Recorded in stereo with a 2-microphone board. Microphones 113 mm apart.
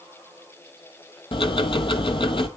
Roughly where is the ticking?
Left.